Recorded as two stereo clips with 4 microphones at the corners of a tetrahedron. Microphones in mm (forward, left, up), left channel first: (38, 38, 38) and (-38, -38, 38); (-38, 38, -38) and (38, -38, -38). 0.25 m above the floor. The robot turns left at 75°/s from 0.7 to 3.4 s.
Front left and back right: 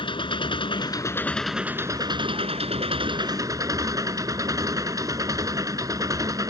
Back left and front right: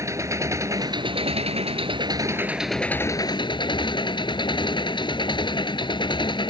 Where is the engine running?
15° left; by 6.5 s 170° left.